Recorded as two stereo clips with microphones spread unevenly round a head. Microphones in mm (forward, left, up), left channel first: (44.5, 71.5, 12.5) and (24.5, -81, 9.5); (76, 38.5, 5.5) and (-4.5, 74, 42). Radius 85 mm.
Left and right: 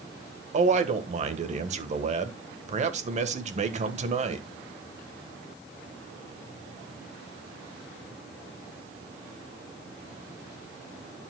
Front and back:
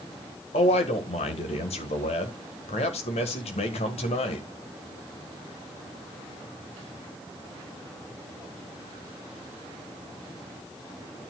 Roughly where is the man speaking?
Ahead right.